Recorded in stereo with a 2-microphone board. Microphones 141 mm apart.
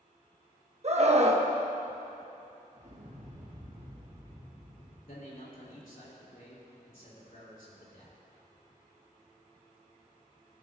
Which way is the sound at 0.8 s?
50° right (ahead or behind).